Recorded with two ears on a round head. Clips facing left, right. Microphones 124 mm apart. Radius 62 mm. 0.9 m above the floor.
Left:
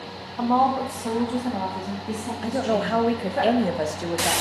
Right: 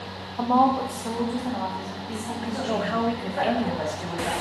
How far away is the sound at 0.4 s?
About 1.0 m.